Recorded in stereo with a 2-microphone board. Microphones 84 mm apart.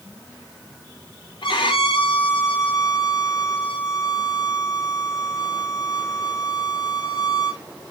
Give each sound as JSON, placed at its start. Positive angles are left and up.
{"t": 1.4, "sound": "a violin", "side_deg": 75, "distance_m": 2.0}